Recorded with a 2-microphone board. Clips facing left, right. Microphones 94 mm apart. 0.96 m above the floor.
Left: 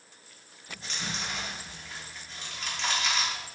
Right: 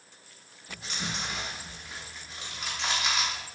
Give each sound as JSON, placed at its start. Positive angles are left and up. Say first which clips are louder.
{"t": 0.7, "sound": "chewing", "louder": "right 1 dB", "side_deg": -10, "distance_m": 1.2}